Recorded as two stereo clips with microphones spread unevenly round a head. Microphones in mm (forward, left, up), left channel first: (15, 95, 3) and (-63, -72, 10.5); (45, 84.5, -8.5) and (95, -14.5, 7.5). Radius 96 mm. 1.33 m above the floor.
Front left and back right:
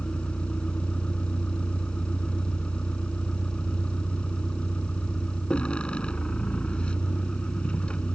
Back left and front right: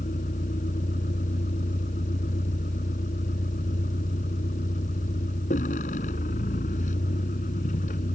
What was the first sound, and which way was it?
A vehicle, 150° left.